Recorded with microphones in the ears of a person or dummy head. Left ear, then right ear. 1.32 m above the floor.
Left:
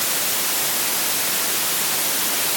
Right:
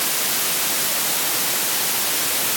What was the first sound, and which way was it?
Only background noise.